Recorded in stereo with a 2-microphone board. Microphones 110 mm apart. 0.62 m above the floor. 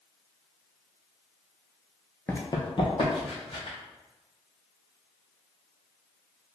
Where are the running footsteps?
20° left (ahead or behind), 0.6 m; by 3.8 s 55° left (ahead or behind), 2.5 m.